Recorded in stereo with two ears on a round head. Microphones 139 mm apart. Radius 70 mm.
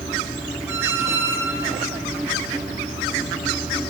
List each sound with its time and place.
0.7 s a squeak: 15° right (ahead or behind), 0.5 m